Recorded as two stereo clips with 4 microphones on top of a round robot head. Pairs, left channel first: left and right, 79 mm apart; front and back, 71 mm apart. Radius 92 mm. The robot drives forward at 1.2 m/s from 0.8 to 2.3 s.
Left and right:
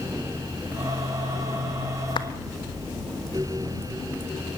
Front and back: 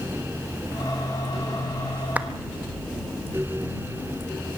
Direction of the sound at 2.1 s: 110° left.